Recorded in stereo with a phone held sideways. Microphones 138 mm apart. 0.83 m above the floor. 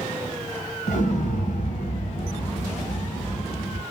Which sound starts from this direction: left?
An explosion, at 0.9 s.